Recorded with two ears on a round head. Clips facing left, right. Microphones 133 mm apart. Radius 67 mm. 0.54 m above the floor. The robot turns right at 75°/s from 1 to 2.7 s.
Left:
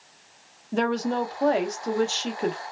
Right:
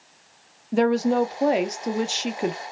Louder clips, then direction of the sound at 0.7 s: Right 5 dB; 10° right (ahead or behind).